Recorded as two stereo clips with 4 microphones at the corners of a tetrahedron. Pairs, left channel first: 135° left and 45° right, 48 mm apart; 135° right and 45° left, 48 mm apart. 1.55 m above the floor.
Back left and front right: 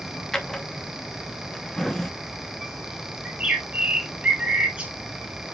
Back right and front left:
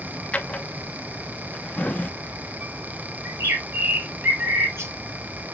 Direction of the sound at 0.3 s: 155° right.